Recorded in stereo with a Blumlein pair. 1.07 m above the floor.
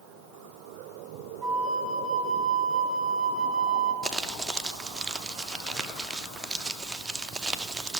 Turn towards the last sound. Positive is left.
turn(degrees=-15)